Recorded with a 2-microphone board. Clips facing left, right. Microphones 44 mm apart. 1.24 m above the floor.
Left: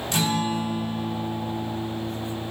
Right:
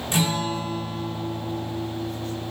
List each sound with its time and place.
0.1 s a guitar: 15° right (ahead or behind), 1.3 m